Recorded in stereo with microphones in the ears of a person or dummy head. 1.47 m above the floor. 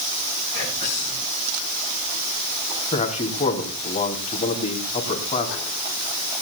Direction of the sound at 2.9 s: 25° left (ahead or behind).